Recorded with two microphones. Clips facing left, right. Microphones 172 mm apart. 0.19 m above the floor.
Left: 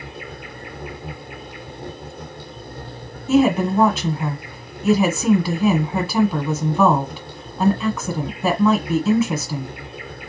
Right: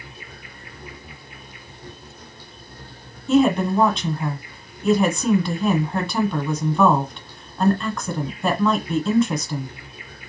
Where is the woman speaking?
5° left (ahead or behind), 1.2 m.